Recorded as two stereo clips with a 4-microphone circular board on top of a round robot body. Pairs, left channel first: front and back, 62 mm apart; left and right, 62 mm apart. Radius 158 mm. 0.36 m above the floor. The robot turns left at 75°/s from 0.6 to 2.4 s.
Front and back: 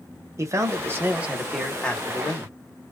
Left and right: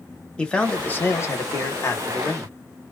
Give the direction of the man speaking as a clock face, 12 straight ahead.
7 o'clock.